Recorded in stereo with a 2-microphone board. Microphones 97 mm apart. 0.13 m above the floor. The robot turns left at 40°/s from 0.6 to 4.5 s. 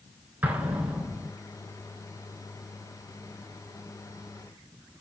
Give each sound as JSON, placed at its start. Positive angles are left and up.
{"t": 0.4, "sound": "an explosion", "side_deg": -15, "distance_m": 0.6}